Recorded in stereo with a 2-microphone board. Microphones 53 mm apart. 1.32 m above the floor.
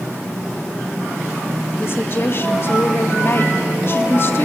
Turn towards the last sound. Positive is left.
turn(degrees=45)  # may be behind; listen again after turning